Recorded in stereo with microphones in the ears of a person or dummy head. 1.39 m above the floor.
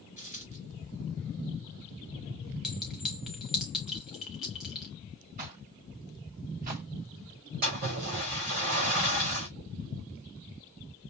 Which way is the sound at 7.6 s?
45° right (ahead or behind).